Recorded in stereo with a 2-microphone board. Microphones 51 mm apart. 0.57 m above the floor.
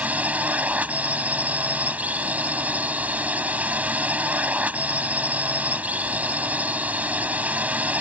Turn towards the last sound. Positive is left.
turn(degrees=-30)  # may be behind; listen again after turning